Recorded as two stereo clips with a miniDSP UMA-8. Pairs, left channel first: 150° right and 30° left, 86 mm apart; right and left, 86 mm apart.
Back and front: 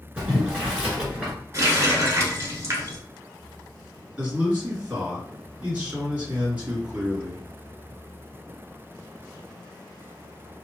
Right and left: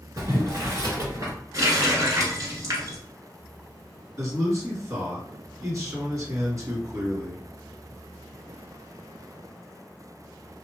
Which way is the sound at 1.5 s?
65° left.